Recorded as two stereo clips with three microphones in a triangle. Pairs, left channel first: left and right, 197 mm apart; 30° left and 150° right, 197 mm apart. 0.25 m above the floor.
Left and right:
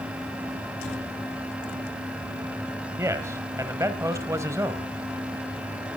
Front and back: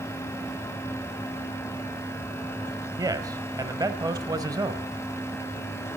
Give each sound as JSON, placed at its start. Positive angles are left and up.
{"t": 3.0, "sound": "a man speaking", "azimuth_deg": -130, "distance_m": 1.3}